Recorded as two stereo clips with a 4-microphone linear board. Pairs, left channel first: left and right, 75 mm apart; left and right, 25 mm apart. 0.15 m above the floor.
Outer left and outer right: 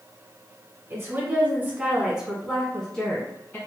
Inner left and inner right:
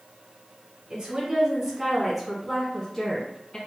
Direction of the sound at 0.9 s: 35° right (ahead or behind).